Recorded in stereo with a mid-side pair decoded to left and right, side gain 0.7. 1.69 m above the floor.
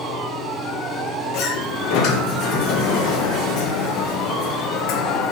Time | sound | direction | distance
0.0 | a fan | 15° right | 2.0 m
1.3 | a sliding door | 60° left | 0.9 m